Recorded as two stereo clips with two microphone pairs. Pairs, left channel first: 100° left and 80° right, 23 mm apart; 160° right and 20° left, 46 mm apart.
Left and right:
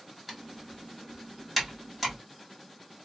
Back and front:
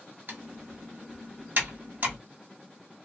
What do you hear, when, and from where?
0.3 s typing on a keyboard: straight ahead, 1.2 m